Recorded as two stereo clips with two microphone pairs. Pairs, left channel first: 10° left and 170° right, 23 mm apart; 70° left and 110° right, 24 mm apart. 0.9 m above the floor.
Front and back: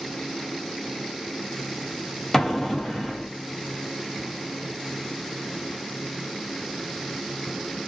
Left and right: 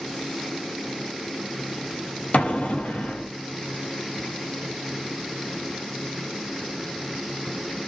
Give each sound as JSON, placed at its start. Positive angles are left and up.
{"t": 2.3, "sound": "an explosion", "azimuth_deg": 85, "distance_m": 0.7}